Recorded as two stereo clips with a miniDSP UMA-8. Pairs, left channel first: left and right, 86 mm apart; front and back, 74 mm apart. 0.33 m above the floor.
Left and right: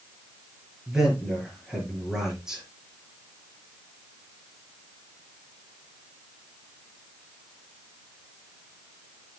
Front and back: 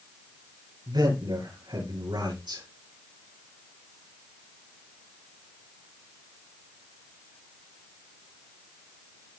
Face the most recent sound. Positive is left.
turn(degrees=-175)